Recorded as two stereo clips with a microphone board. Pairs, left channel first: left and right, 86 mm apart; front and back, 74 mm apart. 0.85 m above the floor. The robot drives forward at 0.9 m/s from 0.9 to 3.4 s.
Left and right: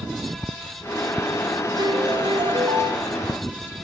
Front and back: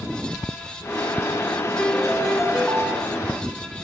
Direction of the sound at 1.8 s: 75° right.